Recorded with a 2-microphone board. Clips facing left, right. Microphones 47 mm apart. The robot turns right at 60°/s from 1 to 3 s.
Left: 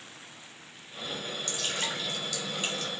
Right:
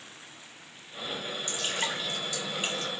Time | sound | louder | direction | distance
1.5 | dripping | right 2 dB | 25° right (ahead or behind) | 1.2 m